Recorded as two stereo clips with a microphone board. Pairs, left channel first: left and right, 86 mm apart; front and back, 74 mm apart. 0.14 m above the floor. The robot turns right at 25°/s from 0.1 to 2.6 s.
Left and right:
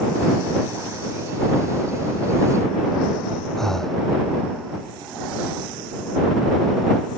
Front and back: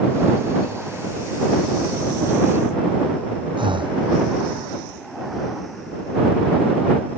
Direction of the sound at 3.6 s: 175° left.